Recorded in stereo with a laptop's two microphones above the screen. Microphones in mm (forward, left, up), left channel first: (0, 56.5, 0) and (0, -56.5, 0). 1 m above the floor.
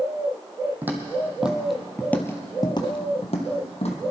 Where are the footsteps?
15° right (ahead or behind), 2.5 m; by 4.0 s 60° left (ahead or behind), 2.5 m.